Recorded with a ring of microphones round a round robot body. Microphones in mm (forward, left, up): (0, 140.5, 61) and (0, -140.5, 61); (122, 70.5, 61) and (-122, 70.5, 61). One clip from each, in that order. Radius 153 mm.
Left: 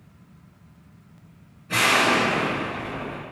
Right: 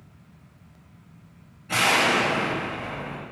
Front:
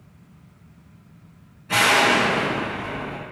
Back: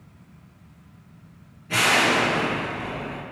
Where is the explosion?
45° right, 1.5 m.